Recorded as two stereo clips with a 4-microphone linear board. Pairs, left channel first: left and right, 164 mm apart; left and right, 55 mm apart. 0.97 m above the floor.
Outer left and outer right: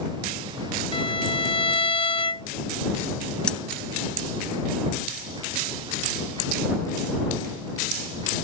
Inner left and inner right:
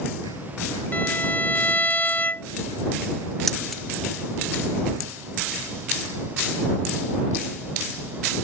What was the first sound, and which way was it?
A violin, 35° left (ahead or behind).